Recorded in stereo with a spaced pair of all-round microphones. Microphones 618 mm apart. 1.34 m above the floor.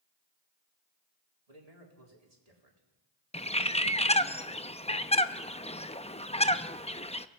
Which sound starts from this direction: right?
A man speaking, at 1.5 s.